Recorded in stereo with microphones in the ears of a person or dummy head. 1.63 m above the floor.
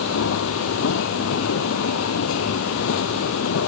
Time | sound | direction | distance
0.0 | a machine running | 80° left | ?